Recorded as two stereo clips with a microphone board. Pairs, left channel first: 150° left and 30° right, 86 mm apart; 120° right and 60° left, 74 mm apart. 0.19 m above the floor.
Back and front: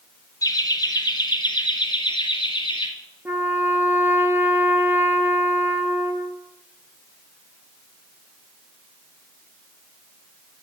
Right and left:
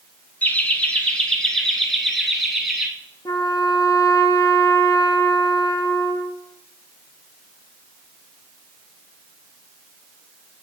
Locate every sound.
0.4 s laughter: straight behind, 1.7 m; by 2.9 s 145° left, 3 m
3.2 s a trumpet: 95° right, 1.3 m